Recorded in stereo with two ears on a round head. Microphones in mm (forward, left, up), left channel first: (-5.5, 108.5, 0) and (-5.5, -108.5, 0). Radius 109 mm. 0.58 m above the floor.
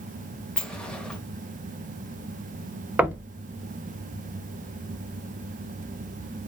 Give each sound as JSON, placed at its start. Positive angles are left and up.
{"t": 0.6, "sound": "a sliding door", "side_deg": 5, "distance_m": 0.9}
{"t": 3.0, "sound": "knocking", "side_deg": -5, "distance_m": 0.6}